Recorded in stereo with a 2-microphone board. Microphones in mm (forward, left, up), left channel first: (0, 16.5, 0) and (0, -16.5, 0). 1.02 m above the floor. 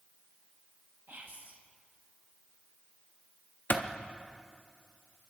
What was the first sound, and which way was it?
Whispering, 70° right (ahead or behind).